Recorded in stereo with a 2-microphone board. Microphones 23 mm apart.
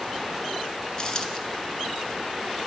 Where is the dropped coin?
35° left (ahead or behind), 1.0 m.